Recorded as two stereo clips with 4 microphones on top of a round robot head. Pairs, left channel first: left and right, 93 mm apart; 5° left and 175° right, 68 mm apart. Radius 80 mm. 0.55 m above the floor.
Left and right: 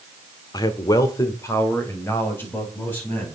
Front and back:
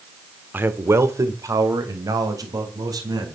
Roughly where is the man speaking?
Behind left.